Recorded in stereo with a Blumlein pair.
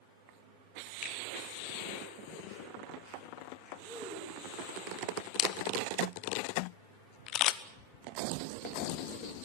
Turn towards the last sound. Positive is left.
turn(degrees=35)